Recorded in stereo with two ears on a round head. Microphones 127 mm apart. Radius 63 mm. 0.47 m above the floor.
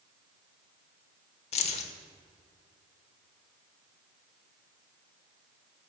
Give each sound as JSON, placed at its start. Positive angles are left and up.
{"t": 1.5, "sound": "keys jangling", "side_deg": 45, "distance_m": 1.1}